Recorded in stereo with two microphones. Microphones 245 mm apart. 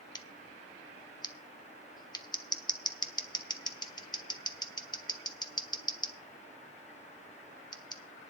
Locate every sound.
0.1 s scissors: 15° left (ahead or behind), 1.1 m